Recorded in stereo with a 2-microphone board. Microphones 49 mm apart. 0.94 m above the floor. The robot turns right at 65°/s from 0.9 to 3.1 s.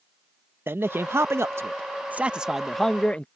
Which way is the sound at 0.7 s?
115° right.